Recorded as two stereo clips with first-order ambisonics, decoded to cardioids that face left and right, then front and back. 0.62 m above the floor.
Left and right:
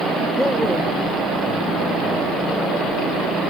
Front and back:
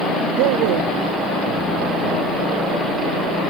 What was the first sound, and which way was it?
A man speaking, straight behind.